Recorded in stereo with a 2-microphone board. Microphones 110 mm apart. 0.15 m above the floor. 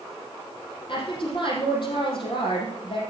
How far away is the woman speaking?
About 4.5 m.